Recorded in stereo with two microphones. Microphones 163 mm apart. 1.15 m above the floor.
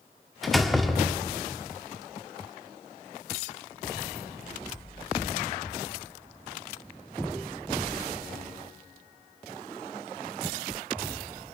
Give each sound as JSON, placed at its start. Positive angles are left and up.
{"t": 0.4, "sound": "a door slam", "side_deg": 0, "distance_m": 1.8}